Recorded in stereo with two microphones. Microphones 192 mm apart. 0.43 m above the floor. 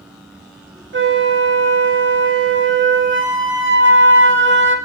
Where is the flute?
85° right, 0.6 m.